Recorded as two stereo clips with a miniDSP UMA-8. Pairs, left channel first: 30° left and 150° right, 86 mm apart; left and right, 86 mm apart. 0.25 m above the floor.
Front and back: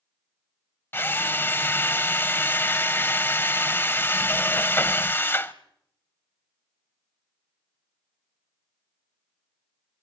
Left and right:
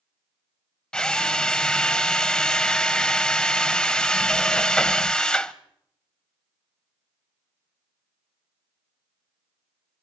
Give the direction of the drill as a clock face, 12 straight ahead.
11 o'clock.